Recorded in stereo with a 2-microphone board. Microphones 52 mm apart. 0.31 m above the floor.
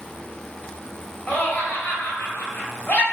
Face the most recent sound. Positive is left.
turn(degrees=35)  # may be behind; listen again after turning